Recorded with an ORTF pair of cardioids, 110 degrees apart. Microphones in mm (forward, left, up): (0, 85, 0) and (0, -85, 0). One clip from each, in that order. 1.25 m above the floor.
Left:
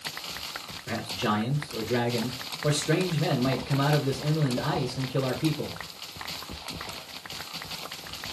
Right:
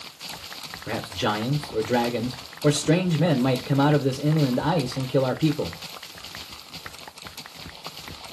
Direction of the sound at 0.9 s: 55° right.